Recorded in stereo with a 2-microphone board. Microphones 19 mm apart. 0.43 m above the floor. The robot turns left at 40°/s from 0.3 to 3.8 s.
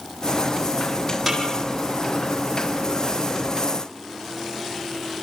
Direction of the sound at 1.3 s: 5° right (ahead or behind).